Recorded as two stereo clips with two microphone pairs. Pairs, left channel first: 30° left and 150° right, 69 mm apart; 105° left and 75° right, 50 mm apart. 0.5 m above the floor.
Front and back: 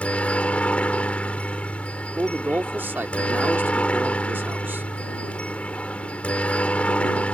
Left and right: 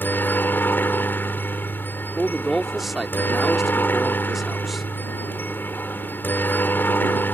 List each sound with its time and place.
0.0 s a helicopter: 90° left
2.2 s a man speaking: 155° right